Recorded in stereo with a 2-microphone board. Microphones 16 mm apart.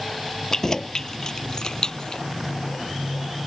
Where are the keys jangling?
30° left (ahead or behind); by 2.2 s 45° left (ahead or behind).